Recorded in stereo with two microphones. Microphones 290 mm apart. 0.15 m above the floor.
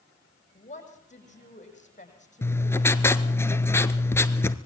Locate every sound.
0.6 s a woman speaking: 25° left (ahead or behind), 6 m
2.4 s writing: 10° left (ahead or behind), 1.0 m